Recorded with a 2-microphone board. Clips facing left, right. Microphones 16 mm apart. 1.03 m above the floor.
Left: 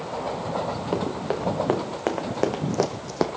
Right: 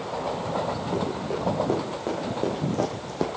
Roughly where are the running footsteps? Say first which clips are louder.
Left 1 dB; left.